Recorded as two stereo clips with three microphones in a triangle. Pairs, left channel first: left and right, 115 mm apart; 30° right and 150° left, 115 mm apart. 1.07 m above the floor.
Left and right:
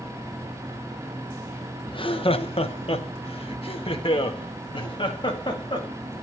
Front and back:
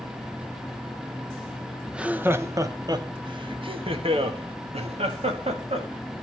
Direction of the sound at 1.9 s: 65° left.